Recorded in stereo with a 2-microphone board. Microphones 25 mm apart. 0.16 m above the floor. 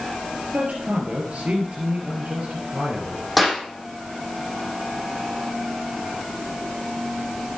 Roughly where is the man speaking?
Right.